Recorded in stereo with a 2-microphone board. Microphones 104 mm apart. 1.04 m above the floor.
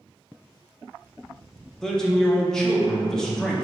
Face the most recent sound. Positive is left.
turn(degrees=5)  # may be behind; listen again after turning